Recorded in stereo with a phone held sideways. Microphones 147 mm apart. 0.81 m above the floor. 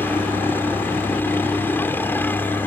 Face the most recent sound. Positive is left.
turn(degrees=15)  # may be behind; listen again after turning